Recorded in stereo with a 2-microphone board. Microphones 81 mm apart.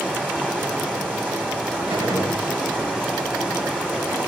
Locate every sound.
0.0 s running water: 20° right (ahead or behind), 5 m
1.9 s a gunshot: 70° right (ahead or behind), 6 m